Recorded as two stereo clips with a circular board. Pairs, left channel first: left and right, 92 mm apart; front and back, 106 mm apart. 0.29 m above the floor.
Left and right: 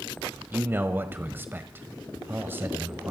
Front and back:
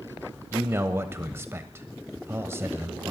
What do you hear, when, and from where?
0.5 s a man speaking: 135° right, 1.1 m